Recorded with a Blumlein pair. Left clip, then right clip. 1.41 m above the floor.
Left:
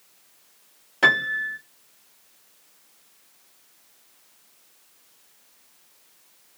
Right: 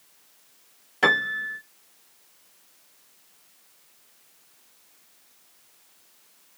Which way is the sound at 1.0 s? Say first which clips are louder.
Left 2 dB; 5° left.